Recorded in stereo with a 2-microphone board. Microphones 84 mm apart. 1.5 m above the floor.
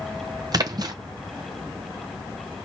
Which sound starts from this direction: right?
A splash, at 0.5 s.